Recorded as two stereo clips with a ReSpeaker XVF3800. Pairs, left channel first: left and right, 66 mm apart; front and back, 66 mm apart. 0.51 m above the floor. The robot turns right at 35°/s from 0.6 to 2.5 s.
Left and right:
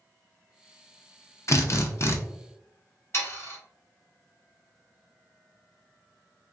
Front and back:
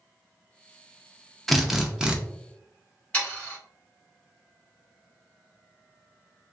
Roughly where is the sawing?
Ahead left.